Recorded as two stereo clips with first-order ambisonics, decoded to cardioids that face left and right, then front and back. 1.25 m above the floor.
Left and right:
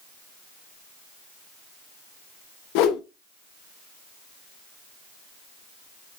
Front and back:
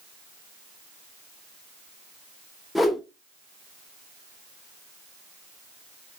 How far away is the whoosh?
About 0.6 m.